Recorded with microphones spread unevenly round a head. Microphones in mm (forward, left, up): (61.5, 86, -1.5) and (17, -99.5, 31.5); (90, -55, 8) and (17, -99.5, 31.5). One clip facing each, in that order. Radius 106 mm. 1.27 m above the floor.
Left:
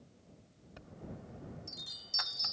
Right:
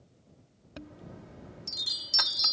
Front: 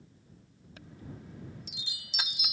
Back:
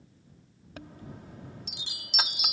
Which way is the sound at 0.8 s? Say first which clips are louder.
Right 3 dB, back 3 dB; 120° right.